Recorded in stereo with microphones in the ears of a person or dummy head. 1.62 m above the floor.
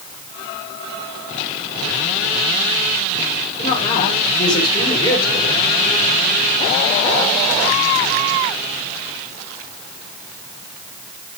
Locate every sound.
3.6 s a woman speaking: 30° left (ahead or behind), 6.5 m